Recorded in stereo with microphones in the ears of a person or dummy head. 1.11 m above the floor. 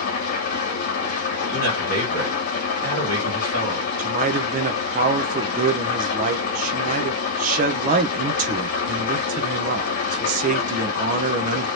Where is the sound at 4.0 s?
40° right (ahead or behind), 0.6 m.